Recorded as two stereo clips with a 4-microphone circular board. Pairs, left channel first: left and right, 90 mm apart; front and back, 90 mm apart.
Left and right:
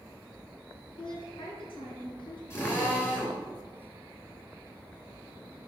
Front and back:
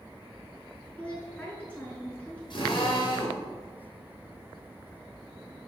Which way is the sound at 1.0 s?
75° left.